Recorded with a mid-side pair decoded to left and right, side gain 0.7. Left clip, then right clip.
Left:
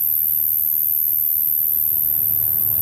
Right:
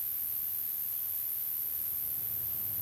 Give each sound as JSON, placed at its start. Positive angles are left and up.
{"t": 0.0, "sound": "an insect", "azimuth_deg": 70, "distance_m": 1.0}